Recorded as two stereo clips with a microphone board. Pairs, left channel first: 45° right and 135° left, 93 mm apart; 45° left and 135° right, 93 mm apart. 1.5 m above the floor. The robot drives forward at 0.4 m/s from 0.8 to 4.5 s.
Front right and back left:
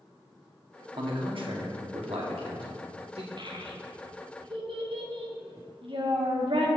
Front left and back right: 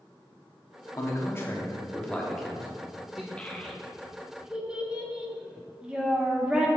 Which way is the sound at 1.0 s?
100° left.